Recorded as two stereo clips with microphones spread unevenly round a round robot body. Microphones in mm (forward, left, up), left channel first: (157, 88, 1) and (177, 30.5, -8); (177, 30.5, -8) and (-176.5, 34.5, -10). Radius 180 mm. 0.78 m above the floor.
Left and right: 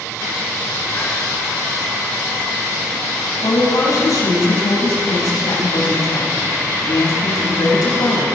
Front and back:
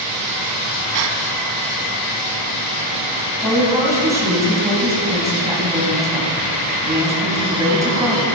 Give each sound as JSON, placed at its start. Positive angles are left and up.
{"t": 0.9, "sound": "a gasp", "azimuth_deg": 170, "distance_m": 1.3}
{"t": 3.4, "sound": "a woman speaking", "azimuth_deg": 100, "distance_m": 5.0}